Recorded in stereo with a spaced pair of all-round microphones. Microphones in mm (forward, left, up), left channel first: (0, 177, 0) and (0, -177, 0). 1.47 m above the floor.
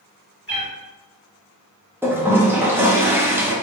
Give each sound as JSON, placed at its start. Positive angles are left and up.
{"t": 0.5, "sound": "a cat meowing", "side_deg": 30, "distance_m": 1.7}
{"t": 2.0, "sound": "a toilet flushing", "side_deg": -5, "distance_m": 0.7}